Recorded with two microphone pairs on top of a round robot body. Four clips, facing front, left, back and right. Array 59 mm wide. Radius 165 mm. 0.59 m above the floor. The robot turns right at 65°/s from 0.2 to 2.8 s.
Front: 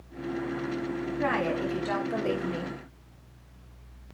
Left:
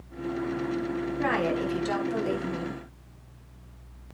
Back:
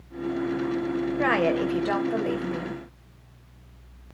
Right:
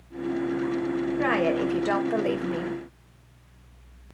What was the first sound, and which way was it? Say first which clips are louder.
A woman speaking: right 2 dB, back 5 dB; 160° right.